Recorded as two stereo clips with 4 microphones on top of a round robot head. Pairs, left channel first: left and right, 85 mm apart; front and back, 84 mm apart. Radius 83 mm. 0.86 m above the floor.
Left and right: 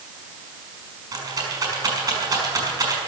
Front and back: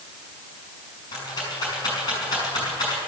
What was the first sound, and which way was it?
A rattle, 50° right.